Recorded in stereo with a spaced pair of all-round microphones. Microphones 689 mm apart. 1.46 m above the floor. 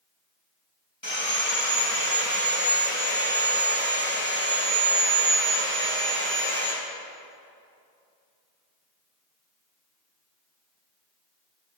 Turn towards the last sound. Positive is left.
turn(degrees=15)  # may be behind; listen again after turning